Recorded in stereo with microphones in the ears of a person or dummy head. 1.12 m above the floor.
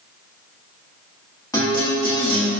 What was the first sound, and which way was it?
A guitar, 15° left (ahead or behind).